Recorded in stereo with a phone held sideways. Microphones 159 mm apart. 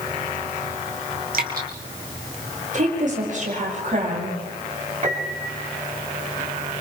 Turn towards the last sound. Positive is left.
turn(degrees=-45)  # may be behind; listen again after turning